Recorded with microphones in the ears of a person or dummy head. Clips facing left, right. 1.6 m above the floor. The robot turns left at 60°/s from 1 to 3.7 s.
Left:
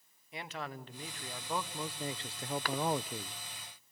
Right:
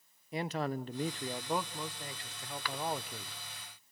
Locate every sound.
0.3 s a man speaking: 135° right, 0.7 m; by 3.3 s 85° left, 0.7 m
2.6 s a cough: 40° left (ahead or behind), 1.1 m; by 2.8 s 35° left (ahead or behind), 1.1 m